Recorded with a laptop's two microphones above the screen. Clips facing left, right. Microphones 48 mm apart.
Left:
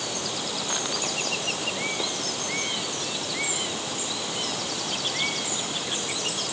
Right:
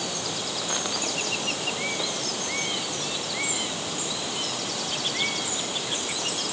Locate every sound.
Only background noise.